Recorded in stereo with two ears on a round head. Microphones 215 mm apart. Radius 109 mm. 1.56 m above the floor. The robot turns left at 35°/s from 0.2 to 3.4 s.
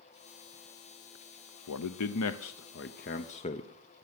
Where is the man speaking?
90° left, 0.6 m; by 4.0 s 30° left, 0.6 m.